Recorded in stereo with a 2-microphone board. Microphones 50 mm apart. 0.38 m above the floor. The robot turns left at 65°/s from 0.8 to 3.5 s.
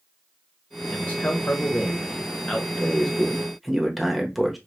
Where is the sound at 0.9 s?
135° left, 1.4 m; by 2.7 s 20° left, 1.4 m.